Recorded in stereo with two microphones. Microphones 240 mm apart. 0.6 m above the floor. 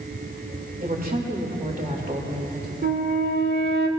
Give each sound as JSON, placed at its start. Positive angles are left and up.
{"t": 0.8, "sound": "a woman speaking", "side_deg": -35, "distance_m": 2.0}
{"t": 2.8, "sound": "a flute", "side_deg": -45, "distance_m": 1.2}